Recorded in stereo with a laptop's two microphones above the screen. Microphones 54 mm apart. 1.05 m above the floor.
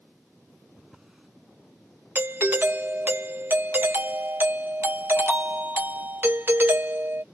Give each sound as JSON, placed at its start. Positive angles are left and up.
{"t": 0.8, "sound": "a drawer", "side_deg": -5}
{"t": 2.1, "sound": "a doorbell", "side_deg": -35}